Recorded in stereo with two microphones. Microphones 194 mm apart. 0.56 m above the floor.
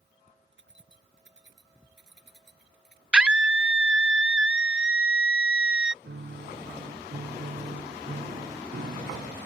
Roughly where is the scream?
Centre.